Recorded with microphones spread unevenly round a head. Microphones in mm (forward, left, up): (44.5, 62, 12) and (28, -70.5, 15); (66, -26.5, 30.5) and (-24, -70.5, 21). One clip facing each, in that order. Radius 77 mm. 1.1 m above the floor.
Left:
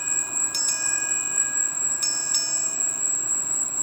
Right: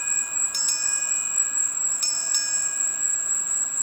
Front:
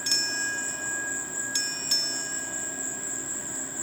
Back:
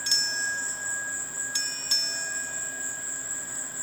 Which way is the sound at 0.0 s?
25° left.